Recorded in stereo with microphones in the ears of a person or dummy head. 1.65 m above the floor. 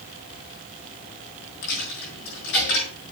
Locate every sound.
1.6 s a dropped coin: 65° left (ahead or behind), 5 m